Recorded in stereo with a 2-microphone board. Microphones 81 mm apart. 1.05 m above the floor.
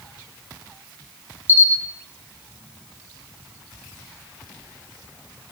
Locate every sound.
1.5 s a camera shutter: 25° right (ahead or behind), 1.9 m